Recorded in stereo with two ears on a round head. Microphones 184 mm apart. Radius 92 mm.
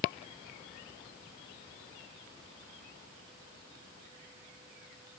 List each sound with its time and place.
Only background noise.